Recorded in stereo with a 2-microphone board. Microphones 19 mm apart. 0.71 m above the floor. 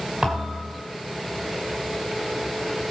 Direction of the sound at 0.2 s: 55° right (ahead or behind).